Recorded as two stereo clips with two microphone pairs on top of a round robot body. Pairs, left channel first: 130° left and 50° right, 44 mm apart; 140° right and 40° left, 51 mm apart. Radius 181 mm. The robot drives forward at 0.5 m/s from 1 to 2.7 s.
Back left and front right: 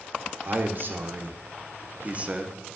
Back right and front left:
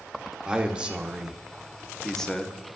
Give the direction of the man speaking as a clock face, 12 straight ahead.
1 o'clock.